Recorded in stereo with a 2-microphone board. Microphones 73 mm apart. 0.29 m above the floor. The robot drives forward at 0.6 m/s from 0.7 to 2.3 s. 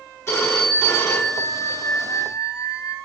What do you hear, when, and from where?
0.3 s a phone ringing: 35° left (ahead or behind), 1.9 m; by 3.0 s 50° left (ahead or behind), 1.5 m